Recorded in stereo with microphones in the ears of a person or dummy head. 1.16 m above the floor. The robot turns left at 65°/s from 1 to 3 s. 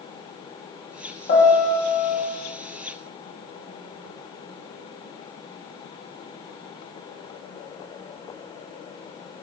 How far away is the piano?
About 0.8 m.